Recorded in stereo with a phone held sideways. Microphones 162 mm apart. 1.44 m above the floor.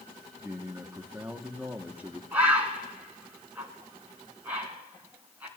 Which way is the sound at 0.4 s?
10° right (ahead or behind).